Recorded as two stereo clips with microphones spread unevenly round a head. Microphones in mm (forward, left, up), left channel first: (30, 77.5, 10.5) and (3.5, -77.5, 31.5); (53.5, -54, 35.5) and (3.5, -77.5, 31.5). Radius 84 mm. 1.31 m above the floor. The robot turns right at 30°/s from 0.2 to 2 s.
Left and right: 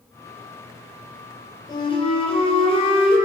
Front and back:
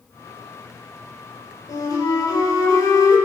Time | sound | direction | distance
1.7 | a flute | 10° left | 4 m